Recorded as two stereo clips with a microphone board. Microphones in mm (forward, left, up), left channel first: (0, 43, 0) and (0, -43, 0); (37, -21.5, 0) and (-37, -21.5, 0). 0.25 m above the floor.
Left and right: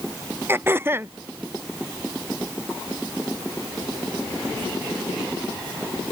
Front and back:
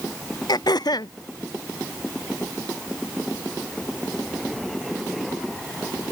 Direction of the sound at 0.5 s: 25° right.